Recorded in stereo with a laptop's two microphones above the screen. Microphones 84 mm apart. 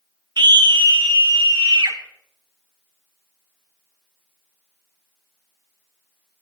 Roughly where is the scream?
Right.